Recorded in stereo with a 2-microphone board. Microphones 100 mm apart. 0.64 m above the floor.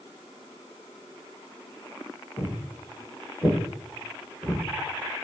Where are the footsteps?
30° left (ahead or behind), 1.2 m; by 4.6 s 10° left (ahead or behind), 2 m.